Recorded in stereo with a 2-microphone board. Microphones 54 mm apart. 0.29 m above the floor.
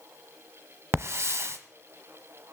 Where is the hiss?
50° right (ahead or behind), 0.9 m.